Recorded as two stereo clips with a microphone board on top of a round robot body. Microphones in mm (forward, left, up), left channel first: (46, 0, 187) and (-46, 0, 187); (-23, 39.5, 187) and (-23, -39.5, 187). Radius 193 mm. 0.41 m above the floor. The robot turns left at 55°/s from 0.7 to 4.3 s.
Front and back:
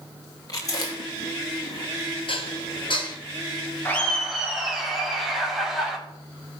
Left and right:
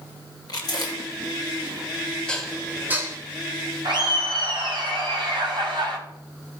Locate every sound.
0.5 s chewing: 50° left, 2.5 m; by 1.9 s 10° right, 2.5 m
2.3 s dishes clattering: 10° left, 2 m; by 3.2 s 35° right, 2 m
3.9 s laughter: 65° right, 4.5 m; by 6.0 s 90° right, 4.5 m